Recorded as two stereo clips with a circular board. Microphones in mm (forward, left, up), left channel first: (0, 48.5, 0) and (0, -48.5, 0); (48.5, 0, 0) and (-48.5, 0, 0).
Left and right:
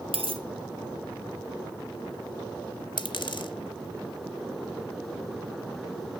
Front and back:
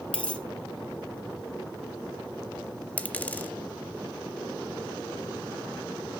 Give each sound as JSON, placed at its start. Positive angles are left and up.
{"t": 0.1, "sound": "a dropped coin", "azimuth_deg": -80, "distance_m": 1.1}
{"t": 3.0, "sound": "a dropped coin", "azimuth_deg": 70, "distance_m": 0.5}